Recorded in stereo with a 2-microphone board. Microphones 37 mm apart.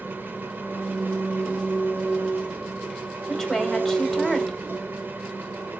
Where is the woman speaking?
5° left (ahead or behind), 1.7 m.